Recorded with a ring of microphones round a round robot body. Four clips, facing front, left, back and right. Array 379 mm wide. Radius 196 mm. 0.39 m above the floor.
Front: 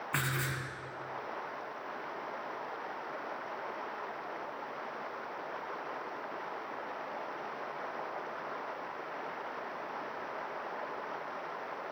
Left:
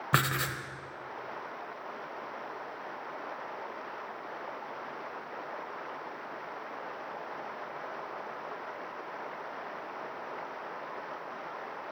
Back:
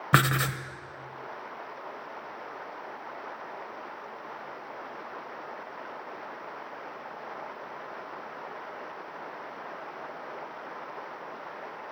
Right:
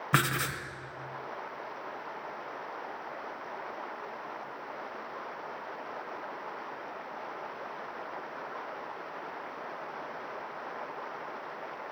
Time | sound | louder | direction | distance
0.1 | writing | right 1 dB, back 12 dB | 175° left | 1.2 m